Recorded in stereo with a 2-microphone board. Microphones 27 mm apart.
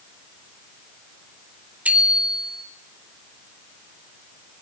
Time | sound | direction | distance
1.9 | a bicycle bell | 75° right (ahead or behind) | 3 m